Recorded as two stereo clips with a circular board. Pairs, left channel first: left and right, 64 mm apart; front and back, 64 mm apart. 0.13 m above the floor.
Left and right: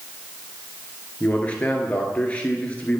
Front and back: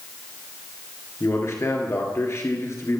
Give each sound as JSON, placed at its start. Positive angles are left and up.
{"t": 1.2, "sound": "a man speaking", "azimuth_deg": 25, "distance_m": 1.6}